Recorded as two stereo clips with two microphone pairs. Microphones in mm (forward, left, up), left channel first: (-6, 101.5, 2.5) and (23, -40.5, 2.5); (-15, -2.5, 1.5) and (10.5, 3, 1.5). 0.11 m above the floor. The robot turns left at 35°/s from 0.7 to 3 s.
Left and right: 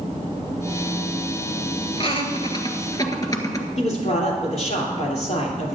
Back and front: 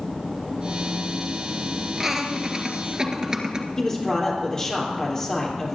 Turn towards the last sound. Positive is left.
turn(degrees=125)